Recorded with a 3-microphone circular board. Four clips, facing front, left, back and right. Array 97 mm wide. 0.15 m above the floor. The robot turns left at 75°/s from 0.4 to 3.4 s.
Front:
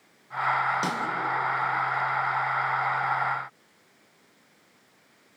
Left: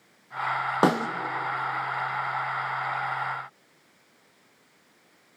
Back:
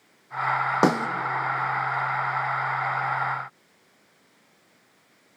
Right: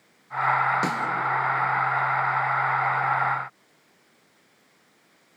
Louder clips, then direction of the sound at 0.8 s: Left 5 dB, back 8 dB; 140° left.